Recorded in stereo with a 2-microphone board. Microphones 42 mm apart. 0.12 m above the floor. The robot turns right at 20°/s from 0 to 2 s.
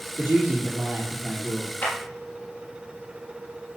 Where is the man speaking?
95° right, 3 m; by 1.7 s 65° right, 3 m.